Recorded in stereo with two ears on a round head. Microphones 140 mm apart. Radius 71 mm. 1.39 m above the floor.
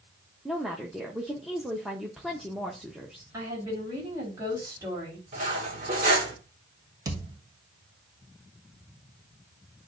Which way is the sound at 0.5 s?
Centre (ahead or behind).